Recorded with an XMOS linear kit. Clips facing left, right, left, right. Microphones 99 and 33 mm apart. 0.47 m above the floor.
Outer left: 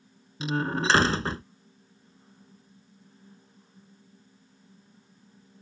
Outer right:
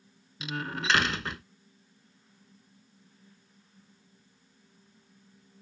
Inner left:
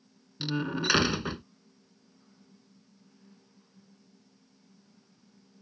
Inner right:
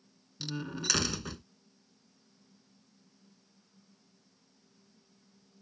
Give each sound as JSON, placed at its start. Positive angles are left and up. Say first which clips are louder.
{"t": 0.4, "sound": "a door slam", "louder": "outer left 7 dB, inner left 7 dB", "side_deg": 30}